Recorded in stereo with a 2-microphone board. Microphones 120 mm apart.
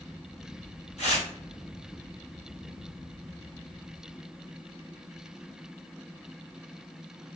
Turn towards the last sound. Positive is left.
turn(degrees=60)  # may be behind; listen again after turning